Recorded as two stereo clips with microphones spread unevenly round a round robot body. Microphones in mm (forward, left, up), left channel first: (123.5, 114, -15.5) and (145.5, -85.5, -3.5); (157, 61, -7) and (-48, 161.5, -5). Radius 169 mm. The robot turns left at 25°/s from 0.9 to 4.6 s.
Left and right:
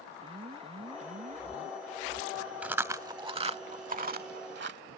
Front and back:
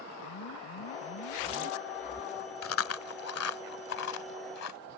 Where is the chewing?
Straight ahead; by 4.8 s 50° right.